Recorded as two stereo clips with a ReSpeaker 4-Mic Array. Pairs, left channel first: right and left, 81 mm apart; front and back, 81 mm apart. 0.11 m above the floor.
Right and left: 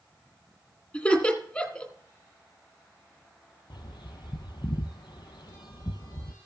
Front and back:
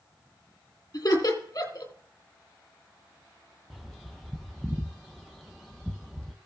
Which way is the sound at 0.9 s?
25° right.